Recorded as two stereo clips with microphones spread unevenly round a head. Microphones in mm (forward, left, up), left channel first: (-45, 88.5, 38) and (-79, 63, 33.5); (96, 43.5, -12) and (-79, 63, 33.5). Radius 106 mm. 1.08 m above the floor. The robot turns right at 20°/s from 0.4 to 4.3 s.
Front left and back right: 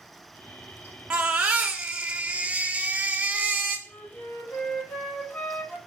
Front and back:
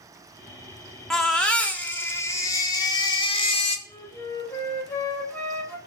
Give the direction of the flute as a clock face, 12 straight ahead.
10 o'clock.